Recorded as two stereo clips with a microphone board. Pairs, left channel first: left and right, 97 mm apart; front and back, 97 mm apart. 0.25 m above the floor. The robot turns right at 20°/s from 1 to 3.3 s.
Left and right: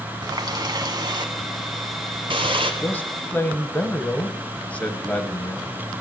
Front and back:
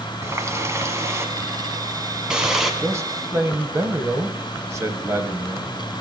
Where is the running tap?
125° right, 1.3 m; by 2.7 s 90° right, 1.3 m.